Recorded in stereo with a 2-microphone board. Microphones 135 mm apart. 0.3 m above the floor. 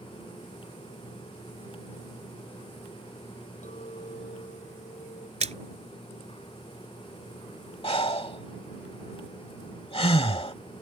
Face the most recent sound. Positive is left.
turn(degrees=45)  # may be behind; listen again after turning